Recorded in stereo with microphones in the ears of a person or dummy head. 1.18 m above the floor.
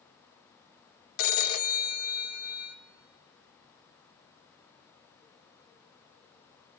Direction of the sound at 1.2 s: 80° left.